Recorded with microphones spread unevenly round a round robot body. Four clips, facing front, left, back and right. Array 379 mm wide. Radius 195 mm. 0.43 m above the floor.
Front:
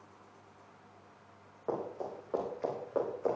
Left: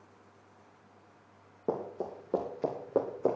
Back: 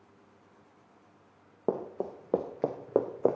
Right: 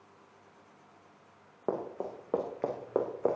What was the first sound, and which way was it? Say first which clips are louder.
Running footsteps: even, back 4 dB; straight behind.